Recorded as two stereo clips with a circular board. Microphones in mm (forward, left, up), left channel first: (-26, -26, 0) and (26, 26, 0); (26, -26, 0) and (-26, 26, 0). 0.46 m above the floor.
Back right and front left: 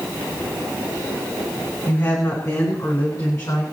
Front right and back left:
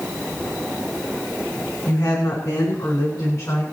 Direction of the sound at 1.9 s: 90° right.